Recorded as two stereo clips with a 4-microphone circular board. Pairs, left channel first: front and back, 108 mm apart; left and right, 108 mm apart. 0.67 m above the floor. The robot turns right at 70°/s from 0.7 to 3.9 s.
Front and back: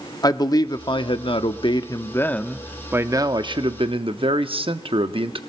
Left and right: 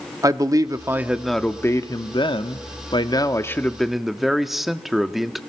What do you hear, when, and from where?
0.2 s a man speaking: 40° right, 1.0 m; by 5.4 s straight behind, 1.0 m